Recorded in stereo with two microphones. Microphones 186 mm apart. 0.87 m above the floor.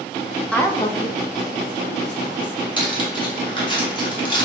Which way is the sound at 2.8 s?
25° left (ahead or behind).